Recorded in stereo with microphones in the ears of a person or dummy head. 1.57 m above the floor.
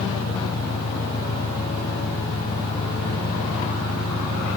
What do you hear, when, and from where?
0.0 s an engine running: 25° left (ahead or behind), 0.9 m